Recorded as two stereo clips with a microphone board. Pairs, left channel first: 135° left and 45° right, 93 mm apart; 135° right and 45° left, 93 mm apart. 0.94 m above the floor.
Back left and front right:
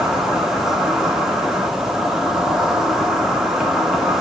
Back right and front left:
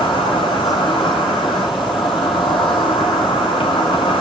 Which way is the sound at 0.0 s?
130° right.